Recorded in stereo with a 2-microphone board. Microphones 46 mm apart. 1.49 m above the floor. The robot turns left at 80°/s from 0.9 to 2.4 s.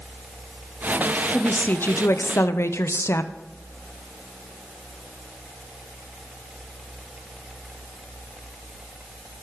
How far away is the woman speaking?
About 0.8 m.